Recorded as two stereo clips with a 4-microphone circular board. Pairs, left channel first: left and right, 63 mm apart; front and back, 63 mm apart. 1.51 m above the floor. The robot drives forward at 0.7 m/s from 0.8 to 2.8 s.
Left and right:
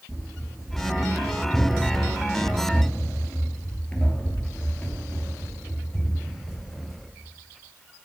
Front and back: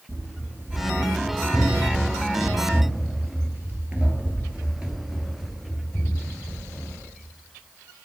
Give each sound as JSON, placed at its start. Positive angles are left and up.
{"t": 0.1, "sound": "running footsteps", "azimuth_deg": -170, "distance_m": 1.9}